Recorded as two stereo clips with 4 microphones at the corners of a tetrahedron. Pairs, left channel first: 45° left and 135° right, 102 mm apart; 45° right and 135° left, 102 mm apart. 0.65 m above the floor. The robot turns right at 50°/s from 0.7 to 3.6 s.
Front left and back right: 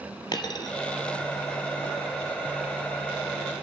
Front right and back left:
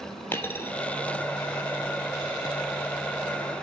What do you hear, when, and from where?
0.3 s a dropped coin: 15° left, 0.9 m